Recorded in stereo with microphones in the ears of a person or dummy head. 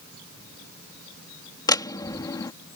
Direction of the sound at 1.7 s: 15° left (ahead or behind).